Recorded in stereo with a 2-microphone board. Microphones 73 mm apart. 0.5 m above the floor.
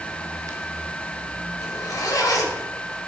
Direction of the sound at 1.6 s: 60° left (ahead or behind).